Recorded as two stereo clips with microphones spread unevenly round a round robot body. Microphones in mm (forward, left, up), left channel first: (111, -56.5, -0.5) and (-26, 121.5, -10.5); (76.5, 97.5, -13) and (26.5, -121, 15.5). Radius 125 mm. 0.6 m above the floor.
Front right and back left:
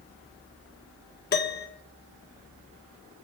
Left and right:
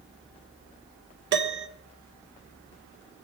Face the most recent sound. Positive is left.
turn(degrees=-85)